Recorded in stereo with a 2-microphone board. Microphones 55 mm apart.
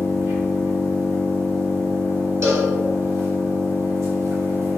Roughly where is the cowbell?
Right.